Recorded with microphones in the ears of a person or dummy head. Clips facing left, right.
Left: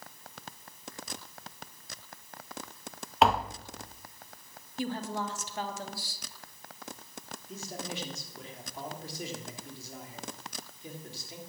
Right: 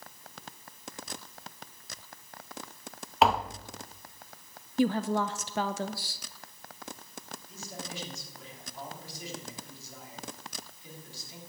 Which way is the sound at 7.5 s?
50° left (ahead or behind).